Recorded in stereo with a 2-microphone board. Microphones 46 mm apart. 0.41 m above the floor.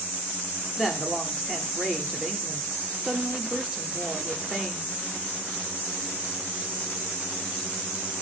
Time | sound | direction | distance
0.8 | a woman speaking | 15° right (ahead or behind) | 0.7 m